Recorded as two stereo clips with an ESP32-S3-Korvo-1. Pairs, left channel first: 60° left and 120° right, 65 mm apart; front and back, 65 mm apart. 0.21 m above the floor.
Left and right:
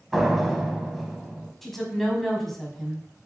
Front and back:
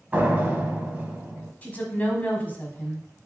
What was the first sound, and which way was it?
A door slam, 155° left.